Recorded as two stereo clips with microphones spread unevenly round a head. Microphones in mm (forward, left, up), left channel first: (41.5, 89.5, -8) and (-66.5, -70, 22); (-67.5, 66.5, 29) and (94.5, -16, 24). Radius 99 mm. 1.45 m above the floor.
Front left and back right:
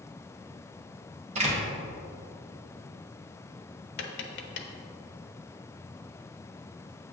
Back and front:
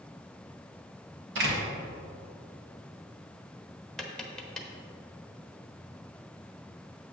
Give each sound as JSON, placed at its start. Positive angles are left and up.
{"t": 1.4, "sound": "a door slam", "azimuth_deg": -65, "distance_m": 1.6}
{"t": 4.0, "sound": "tapping", "azimuth_deg": 70, "distance_m": 0.9}